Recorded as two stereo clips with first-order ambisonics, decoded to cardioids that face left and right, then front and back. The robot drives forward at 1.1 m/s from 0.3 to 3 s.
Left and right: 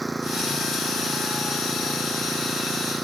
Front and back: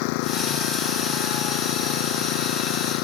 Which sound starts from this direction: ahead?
An engine running, at 0.0 s.